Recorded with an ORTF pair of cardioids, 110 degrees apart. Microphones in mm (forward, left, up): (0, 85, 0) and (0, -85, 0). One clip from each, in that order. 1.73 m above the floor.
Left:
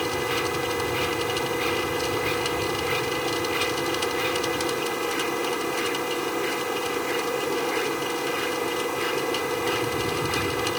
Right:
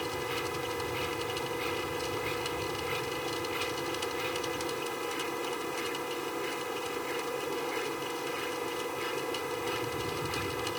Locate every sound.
0.0 s a machine running: 50° left